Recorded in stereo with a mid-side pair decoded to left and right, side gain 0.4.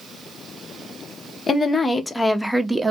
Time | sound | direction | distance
1.5 | a woman speaking | 35° left | 1.0 m